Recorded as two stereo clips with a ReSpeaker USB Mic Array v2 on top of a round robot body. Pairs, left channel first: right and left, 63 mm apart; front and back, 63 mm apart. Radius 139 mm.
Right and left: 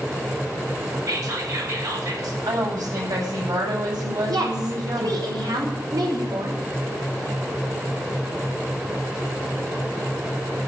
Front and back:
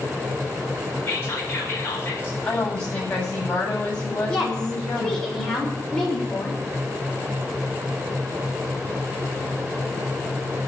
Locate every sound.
1.1 s whispering: 55° left, 5 m
2.4 s a woman speaking: 65° left, 8.5 m
4.3 s a woman speaking: 75° left, 6 m